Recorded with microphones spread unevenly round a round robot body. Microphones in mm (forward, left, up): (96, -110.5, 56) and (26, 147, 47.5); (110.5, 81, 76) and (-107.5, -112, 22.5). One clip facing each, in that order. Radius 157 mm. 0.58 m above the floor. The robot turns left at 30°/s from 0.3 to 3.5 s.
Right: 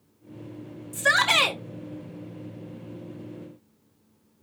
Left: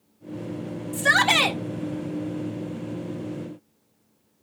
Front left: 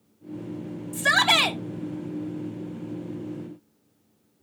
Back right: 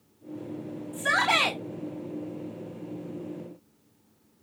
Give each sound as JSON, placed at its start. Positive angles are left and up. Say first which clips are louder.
{"t": 0.9, "sound": "a shout", "louder": "left 2 dB, front left 3 dB", "azimuth_deg": 15, "distance_m": 3.5}